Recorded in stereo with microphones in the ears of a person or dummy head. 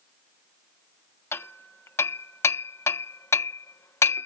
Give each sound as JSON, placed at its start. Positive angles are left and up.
{"t": 1.3, "sound": "hammering", "side_deg": 15}